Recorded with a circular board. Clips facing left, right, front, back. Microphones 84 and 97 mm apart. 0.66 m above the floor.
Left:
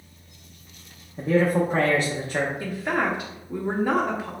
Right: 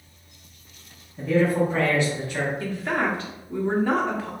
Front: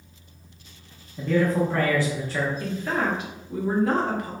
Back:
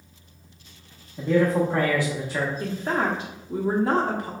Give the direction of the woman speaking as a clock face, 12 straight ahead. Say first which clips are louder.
Even, back 1 dB; 7 o'clock.